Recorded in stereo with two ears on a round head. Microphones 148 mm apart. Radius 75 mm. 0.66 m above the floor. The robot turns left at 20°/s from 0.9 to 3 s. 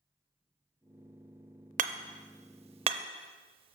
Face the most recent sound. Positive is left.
turn(degrees=-35)  # may be behind; listen again after turning